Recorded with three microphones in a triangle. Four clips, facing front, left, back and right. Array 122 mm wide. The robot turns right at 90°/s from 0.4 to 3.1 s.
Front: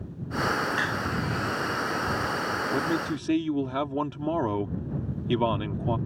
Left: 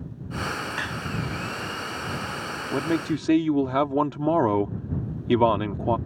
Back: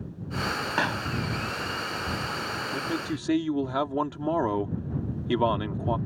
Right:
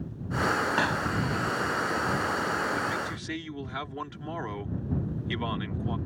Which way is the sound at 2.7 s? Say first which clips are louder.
Left 6 dB, front 3 dB; 65° left.